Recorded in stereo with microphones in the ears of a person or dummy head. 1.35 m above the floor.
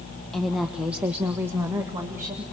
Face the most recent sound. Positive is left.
turn(degrees=-20)  # may be behind; listen again after turning